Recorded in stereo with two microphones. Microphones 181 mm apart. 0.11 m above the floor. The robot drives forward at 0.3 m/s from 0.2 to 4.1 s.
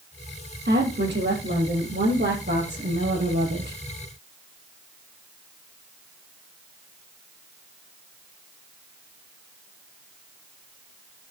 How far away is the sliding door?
I don't hear a sliding door.